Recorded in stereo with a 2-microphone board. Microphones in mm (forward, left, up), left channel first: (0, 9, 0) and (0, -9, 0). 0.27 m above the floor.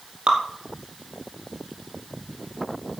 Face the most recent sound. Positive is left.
turn(degrees=-60)  # may be behind; listen again after turning